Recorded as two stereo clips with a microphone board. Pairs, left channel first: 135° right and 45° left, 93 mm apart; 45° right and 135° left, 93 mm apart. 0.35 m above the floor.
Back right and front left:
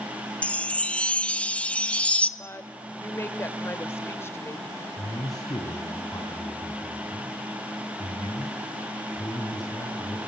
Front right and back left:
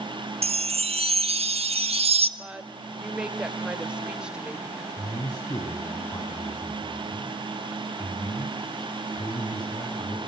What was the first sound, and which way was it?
A chime, 145° left.